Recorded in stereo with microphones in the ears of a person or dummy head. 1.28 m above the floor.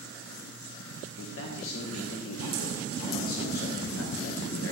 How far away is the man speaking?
About 1.4 m.